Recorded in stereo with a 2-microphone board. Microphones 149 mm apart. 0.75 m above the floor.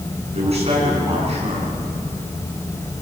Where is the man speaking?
45° right (ahead or behind), 9.5 m.